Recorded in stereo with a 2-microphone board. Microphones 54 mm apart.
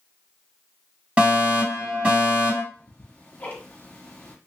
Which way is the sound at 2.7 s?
35° left (ahead or behind).